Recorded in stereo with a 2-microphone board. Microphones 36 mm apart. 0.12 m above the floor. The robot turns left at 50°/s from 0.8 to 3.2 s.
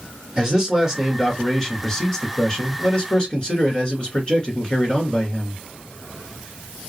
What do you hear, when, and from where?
0.4 s a man speaking: 15° right (ahead or behind), 1.4 m; by 5.6 s 25° left (ahead or behind), 1.4 m